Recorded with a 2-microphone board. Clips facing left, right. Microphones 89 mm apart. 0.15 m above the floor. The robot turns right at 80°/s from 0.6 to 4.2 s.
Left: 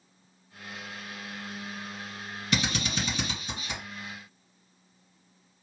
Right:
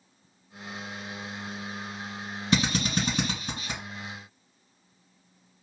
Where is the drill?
30° right (ahead or behind), 2 m.